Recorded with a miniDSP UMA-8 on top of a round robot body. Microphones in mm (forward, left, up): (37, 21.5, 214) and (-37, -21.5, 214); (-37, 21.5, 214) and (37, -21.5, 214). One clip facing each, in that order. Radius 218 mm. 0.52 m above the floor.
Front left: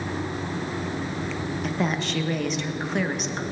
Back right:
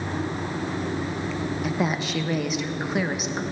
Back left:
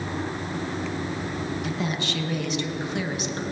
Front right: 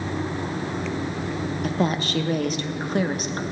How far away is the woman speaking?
About 1.1 m.